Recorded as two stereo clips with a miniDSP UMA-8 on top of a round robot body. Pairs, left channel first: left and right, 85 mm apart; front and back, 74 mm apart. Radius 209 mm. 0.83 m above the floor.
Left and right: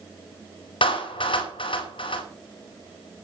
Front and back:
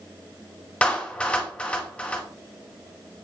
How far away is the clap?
About 5 m.